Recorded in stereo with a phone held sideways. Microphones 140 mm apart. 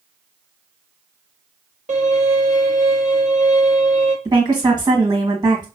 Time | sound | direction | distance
1.9 | a violin | 60° right (ahead or behind) | 1.1 m
4.2 | a woman speaking | 30° right (ahead or behind) | 1.7 m